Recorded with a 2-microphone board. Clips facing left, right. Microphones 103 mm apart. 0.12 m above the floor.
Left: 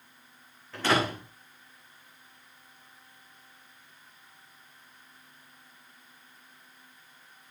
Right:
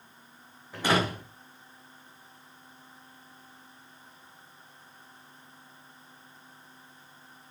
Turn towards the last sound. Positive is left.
turn(degrees=-15)  # may be behind; listen again after turning